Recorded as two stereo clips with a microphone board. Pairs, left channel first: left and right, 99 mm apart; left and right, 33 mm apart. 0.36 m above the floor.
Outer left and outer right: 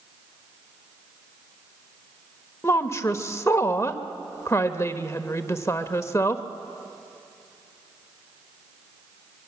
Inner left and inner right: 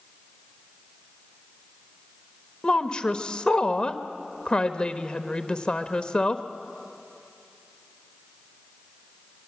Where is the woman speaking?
30° left (ahead or behind), 1.1 m.